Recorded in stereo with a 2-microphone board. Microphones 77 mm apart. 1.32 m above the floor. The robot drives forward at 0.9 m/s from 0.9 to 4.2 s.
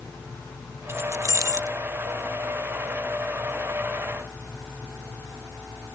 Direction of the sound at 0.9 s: 35° right (ahead or behind).